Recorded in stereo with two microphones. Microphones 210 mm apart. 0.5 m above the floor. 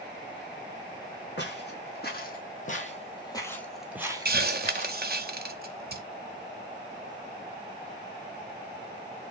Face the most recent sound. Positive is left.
turn(degrees=-55)  # may be behind; listen again after turning